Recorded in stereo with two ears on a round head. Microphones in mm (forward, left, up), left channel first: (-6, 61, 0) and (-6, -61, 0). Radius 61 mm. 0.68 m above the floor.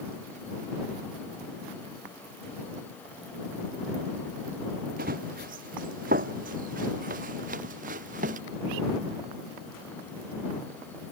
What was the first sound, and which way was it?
Running footsteps, 75° right (ahead or behind).